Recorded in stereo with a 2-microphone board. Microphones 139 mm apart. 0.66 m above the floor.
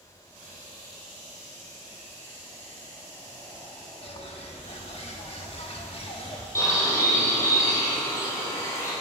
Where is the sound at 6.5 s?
20° left (ahead or behind), 4 m.